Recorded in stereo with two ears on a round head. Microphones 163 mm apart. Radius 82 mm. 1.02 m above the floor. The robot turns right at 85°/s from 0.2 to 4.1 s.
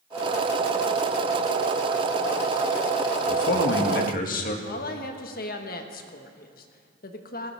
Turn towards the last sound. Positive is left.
turn(degrees=50)  # may be behind; listen again after turning